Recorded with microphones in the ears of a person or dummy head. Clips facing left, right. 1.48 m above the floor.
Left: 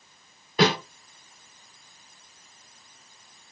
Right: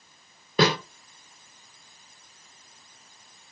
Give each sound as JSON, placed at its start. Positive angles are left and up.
{"t": 0.6, "sound": "a snare drum", "side_deg": -85, "distance_m": 1.5}